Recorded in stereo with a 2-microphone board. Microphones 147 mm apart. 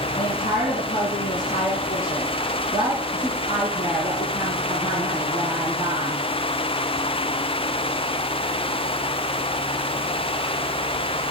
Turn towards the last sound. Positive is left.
turn(degrees=65)  # may be behind; listen again after turning